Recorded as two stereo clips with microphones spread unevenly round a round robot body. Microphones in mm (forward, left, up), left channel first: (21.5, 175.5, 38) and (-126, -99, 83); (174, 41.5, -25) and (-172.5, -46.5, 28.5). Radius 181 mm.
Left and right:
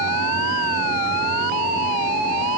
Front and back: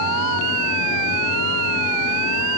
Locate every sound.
Only background noise.